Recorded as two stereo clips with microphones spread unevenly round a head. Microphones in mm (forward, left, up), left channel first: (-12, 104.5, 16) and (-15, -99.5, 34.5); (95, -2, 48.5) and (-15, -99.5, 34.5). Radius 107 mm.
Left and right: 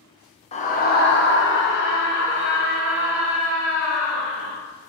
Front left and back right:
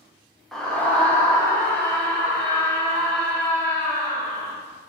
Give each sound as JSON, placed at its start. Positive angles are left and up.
{"t": 0.5, "sound": "a scream", "azimuth_deg": 135, "distance_m": 0.6}